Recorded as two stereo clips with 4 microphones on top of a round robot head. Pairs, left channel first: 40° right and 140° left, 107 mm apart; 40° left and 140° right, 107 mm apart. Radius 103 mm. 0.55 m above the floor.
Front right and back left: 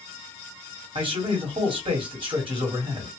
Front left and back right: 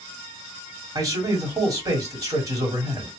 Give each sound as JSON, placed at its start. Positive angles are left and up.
{"t": 0.9, "sound": "a man speaking", "azimuth_deg": 165, "distance_m": 2.0}